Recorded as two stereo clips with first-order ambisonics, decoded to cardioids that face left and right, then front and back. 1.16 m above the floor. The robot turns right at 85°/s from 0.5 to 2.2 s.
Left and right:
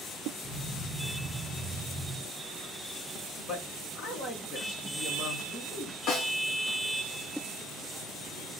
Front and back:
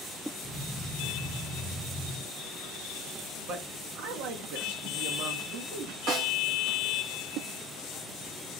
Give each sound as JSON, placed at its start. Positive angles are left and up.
{"t": 3.5, "sound": "a man speaking", "azimuth_deg": 140, "distance_m": 1.1}
{"t": 6.1, "sound": "a snare drum", "azimuth_deg": 140, "distance_m": 1.4}